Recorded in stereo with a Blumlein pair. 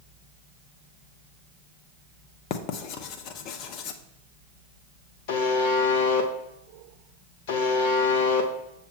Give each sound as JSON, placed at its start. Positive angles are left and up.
{"t": 2.5, "sound": "writing", "azimuth_deg": 40, "distance_m": 0.7}
{"t": 5.3, "sound": "a buzzer", "azimuth_deg": 50, "distance_m": 1.0}